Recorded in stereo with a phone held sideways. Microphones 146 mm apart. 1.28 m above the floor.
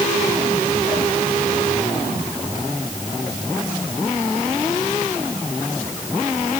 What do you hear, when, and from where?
Only background noise.